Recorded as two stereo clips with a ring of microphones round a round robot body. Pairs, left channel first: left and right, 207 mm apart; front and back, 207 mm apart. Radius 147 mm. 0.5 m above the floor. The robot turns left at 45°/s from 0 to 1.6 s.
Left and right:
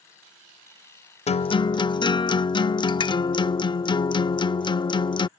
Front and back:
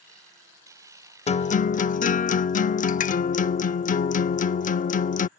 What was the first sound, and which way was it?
A guitar, 45° left.